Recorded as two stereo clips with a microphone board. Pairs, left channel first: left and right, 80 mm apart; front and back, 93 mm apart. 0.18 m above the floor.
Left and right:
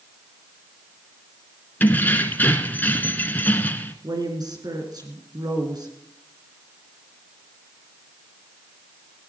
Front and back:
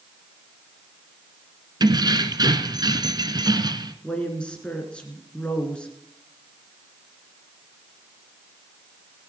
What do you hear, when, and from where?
1.8 s keys jangling: 150° left, 1.2 m
4.0 s a woman speaking: 75° right, 2.5 m